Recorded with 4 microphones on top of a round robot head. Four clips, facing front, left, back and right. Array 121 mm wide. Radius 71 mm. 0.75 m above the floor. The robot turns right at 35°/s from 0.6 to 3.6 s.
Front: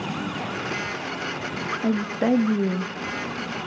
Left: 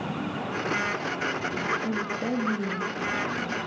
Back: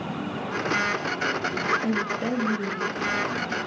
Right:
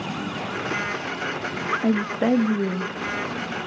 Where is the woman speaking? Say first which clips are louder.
Right 8 dB, front 4 dB; 65° right, 1.0 m; by 3.7 s 5° right, 1.0 m.